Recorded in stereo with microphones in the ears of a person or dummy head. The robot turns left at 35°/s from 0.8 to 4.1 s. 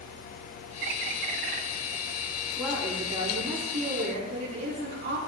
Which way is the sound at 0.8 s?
65° right (ahead or behind).